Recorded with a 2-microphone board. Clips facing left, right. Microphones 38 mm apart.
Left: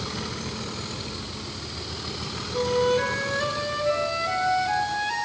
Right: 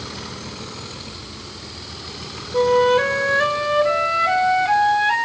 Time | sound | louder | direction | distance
2.5 | a flute | right 7 dB | 40° right (ahead or behind) | 2.5 m